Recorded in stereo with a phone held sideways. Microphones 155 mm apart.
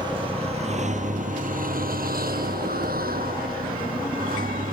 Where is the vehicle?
30° right (ahead or behind); by 4.7 s 70° right (ahead or behind).